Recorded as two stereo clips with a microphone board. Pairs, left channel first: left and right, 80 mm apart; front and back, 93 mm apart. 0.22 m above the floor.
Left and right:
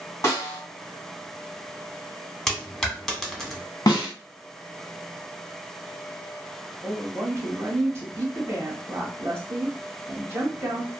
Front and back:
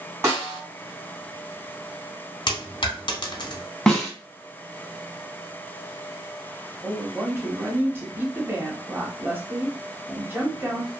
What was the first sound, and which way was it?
A snare drum, 125° left.